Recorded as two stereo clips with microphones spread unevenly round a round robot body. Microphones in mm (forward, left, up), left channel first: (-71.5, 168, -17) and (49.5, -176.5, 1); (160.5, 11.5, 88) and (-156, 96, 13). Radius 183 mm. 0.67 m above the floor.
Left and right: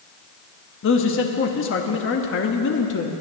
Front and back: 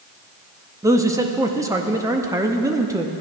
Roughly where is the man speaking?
Behind left.